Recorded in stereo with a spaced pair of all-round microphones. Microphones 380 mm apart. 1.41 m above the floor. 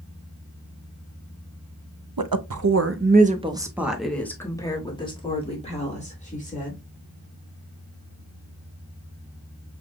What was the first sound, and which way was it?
A woman speaking, 65° right (ahead or behind).